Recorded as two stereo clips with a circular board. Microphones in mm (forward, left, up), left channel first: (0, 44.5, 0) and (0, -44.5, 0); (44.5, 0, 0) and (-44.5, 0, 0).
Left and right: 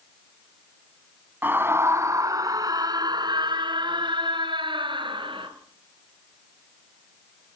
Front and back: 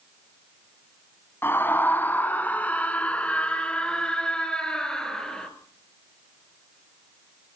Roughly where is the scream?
Ahead right.